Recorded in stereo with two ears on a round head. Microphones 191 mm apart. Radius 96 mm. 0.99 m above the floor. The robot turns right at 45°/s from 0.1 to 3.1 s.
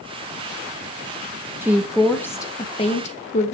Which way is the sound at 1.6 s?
15° right.